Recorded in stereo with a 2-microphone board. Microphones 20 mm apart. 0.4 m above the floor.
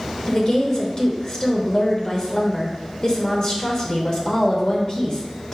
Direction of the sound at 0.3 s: 35° left (ahead or behind).